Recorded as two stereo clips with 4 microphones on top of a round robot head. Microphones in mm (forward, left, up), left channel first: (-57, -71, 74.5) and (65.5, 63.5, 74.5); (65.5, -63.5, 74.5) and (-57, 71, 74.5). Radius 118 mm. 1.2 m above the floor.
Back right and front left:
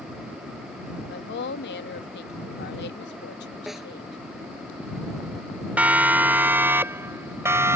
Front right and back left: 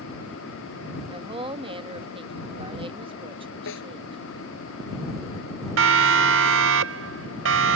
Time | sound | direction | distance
1.1 | a woman speaking | 165° right | ?
3.7 | a snare drum | 40° right | ?
5.8 | a siren | 130° left | ?